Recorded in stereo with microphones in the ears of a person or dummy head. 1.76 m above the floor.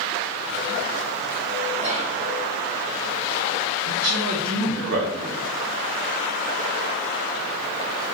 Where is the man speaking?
70° right (ahead or behind), 0.7 m.